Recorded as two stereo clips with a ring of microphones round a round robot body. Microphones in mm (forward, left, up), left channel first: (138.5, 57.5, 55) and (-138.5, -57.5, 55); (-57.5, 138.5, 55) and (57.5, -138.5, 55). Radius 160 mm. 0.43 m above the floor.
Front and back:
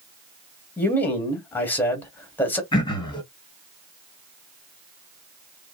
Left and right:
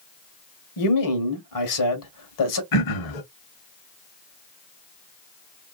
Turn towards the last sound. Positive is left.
turn(degrees=100)